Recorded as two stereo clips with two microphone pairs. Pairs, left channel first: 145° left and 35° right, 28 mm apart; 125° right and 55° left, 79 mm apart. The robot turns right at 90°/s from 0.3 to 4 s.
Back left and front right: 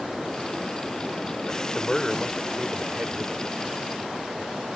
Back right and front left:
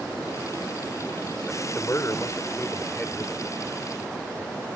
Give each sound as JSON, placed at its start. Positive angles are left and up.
{"t": 1.5, "sound": "a man speaking", "azimuth_deg": 165}